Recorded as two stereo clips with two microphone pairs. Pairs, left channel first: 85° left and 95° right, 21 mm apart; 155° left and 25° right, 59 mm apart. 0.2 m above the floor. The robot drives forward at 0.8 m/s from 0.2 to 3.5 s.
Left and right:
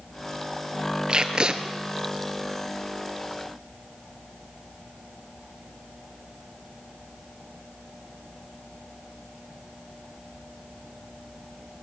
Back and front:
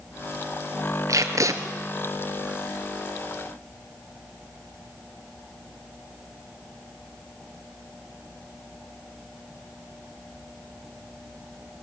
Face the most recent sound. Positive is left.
turn(degrees=-110)